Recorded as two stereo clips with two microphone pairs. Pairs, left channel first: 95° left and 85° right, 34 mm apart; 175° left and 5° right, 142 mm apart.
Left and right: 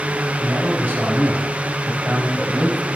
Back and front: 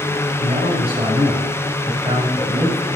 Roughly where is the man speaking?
Ahead right.